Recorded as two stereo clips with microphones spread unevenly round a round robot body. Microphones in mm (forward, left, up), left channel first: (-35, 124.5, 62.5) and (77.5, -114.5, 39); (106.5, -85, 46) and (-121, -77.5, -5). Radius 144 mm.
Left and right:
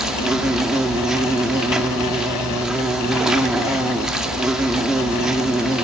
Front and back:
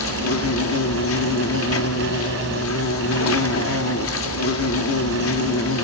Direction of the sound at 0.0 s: 20° left.